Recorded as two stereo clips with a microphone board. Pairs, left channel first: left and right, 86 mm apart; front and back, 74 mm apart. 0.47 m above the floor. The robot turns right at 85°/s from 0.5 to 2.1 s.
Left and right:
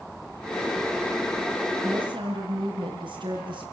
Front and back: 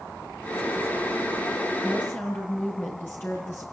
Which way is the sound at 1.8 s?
80° right.